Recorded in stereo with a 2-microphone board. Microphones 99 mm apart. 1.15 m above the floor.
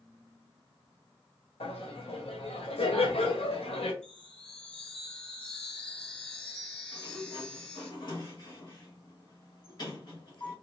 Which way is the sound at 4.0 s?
15° left (ahead or behind).